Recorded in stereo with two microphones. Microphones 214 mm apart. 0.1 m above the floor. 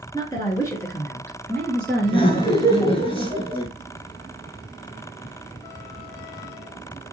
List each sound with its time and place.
0.1 s a woman speaking: 20° left (ahead or behind), 1.2 m; by 3.0 s 5° right (ahead or behind), 1.9 m
2.0 s laughter: 25° left (ahead or behind), 1.2 m